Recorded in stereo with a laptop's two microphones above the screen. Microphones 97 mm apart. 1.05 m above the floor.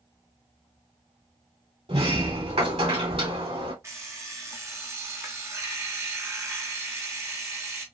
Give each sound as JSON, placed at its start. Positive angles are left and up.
{"t": 1.9, "sound": "a sliding door", "side_deg": -75, "distance_m": 2.0}
{"t": 3.8, "sound": "an alarm clock", "side_deg": -30, "distance_m": 0.8}